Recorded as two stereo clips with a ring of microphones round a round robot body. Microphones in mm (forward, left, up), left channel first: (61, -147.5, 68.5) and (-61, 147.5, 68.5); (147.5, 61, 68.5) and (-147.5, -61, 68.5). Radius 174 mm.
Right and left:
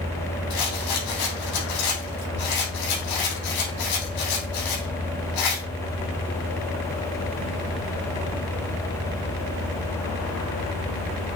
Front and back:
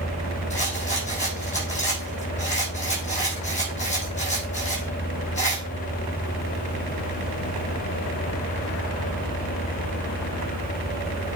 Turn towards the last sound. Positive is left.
turn(degrees=-45)